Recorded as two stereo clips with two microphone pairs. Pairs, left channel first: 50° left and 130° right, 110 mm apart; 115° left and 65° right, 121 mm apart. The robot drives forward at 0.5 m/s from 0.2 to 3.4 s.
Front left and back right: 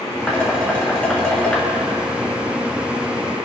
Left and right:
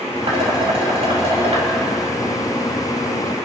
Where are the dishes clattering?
35° right, 5.5 m; by 1.7 s 40° right, 5 m.